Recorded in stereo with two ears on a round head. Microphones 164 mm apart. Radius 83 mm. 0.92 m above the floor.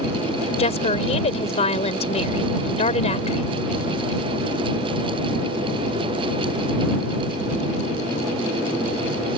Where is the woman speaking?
35° left (ahead or behind).